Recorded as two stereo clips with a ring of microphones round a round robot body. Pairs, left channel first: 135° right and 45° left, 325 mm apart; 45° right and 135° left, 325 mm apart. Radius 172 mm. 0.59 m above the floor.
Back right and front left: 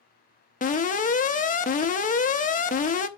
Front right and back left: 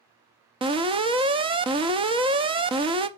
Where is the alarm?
170° right, 0.8 m.